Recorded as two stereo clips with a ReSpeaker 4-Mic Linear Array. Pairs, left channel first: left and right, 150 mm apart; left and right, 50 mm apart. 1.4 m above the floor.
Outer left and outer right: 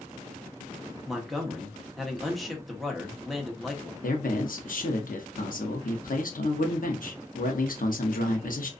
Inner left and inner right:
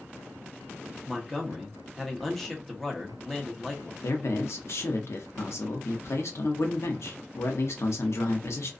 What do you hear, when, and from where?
1.1 s a man speaking: centre (ahead or behind), 0.9 m
4.0 s a man speaking: 70° left (ahead or behind), 0.7 m